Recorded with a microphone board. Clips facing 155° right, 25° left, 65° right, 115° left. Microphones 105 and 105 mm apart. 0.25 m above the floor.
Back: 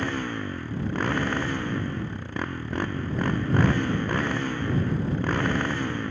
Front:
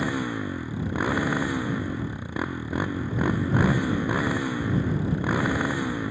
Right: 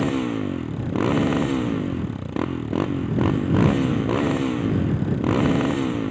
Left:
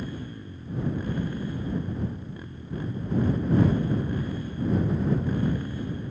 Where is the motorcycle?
60° right.